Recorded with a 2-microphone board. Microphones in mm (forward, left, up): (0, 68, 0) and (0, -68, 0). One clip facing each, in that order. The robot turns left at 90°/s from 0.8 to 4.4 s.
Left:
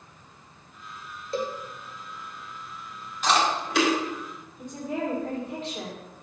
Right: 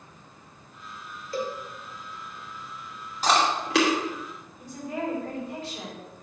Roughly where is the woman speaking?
Left.